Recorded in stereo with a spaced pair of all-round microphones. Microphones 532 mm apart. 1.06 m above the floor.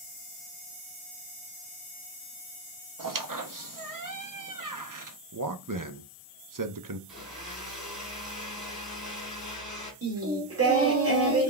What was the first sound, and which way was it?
A squeak, 35° right (ahead or behind).